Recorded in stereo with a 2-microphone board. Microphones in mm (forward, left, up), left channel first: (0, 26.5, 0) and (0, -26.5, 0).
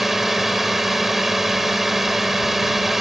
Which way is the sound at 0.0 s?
5° right (ahead or behind).